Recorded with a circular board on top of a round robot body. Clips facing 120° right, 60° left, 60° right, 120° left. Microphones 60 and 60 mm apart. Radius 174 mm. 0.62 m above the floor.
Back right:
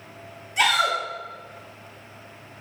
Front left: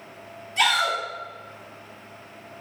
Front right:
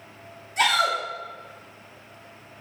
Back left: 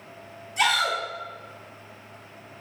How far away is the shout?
About 1.8 m.